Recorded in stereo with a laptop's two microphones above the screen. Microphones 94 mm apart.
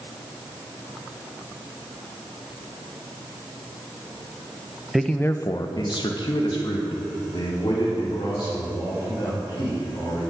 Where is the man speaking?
5° right (ahead or behind), 0.6 m; by 10.2 s 55° left (ahead or behind), 5 m.